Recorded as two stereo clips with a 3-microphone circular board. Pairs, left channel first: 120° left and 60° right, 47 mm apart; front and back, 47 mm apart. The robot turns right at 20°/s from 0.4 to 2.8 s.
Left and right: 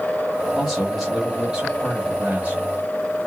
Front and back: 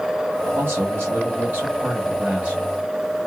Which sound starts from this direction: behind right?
A man speaking, at 0.6 s.